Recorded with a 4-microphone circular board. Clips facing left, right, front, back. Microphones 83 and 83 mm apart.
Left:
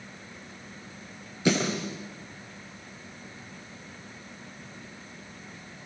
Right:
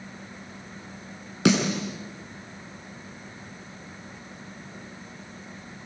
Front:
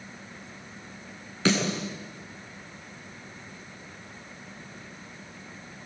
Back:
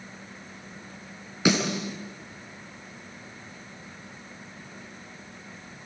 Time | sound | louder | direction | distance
1.4 | a snare drum | right 3 dB, back 1 dB | 100° right | 7 m